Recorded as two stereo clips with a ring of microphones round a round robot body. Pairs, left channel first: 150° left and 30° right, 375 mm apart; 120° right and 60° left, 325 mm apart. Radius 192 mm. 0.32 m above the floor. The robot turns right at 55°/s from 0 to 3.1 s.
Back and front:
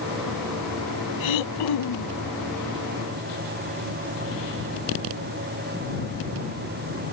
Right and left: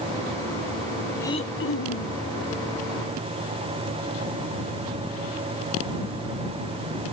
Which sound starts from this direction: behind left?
Throat clearing, at 1.2 s.